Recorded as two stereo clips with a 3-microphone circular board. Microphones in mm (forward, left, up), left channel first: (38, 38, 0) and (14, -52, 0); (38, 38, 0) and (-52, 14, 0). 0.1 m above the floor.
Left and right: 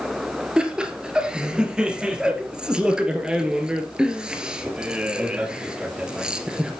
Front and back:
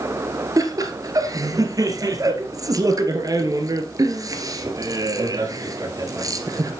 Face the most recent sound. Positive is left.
turn(degrees=175)